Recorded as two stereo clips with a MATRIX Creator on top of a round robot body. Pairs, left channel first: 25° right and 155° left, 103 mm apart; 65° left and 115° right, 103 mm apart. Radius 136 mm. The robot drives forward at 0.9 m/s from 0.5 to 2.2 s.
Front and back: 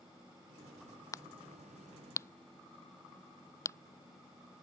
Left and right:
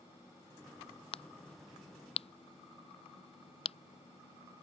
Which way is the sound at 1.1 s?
40° left.